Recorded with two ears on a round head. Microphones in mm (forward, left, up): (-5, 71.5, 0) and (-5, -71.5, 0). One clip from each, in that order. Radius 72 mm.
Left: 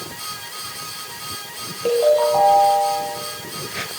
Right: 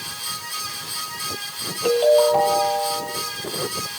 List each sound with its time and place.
1.9 s a ringtone: 80° right, 5.5 m